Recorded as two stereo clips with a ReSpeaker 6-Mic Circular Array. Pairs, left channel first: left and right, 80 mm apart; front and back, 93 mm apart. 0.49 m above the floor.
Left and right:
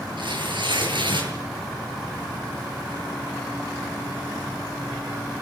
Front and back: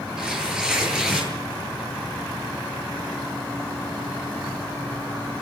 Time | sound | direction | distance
0.2 | tearing paper | 100° right | 9 m